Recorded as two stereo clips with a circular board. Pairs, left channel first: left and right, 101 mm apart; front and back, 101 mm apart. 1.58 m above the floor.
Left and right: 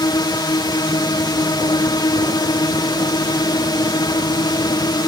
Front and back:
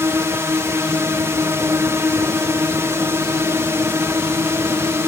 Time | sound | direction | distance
0.0 | a drone | 125° left | ?